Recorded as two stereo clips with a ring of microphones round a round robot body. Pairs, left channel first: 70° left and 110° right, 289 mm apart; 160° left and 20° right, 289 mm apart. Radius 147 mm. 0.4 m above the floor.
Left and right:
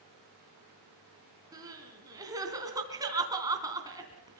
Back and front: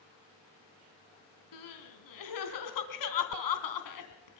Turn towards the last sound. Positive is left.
turn(degrees=170)